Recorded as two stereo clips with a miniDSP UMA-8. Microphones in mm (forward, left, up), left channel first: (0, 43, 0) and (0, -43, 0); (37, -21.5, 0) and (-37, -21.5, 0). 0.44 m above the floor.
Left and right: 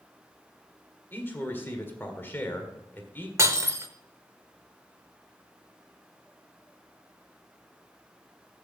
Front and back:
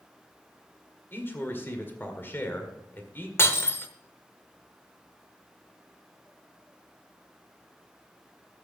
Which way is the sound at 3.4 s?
45° right.